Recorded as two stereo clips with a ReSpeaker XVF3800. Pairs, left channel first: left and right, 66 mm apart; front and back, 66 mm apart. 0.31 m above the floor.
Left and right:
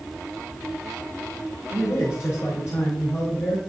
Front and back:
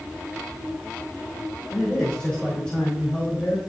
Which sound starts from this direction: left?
A man speaking, at 1.7 s.